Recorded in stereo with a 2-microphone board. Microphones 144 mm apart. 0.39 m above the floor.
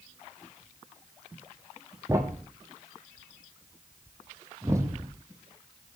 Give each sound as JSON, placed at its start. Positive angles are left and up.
{"t": 2.1, "sound": "a thud", "side_deg": -20, "distance_m": 1.7}